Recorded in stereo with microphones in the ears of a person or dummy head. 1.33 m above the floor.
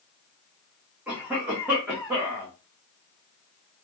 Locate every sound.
1.1 s a cough: 15° right (ahead or behind), 1.0 m